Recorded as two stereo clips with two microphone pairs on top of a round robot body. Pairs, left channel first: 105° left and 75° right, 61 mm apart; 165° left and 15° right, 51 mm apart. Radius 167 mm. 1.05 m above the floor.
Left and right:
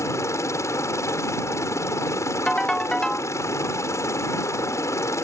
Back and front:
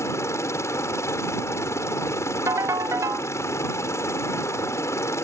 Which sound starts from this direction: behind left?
A helicopter, at 0.0 s.